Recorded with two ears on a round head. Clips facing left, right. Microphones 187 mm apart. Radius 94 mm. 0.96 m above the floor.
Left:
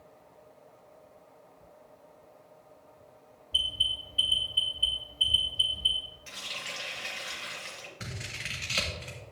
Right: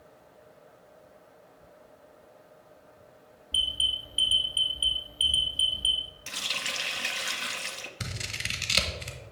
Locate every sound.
3.5 s an alarm: 70° right (ahead or behind), 2.5 m
6.3 s a running tap: 60° right (ahead or behind), 0.7 m
8.0 s scissors: 50° right (ahead or behind), 1.1 m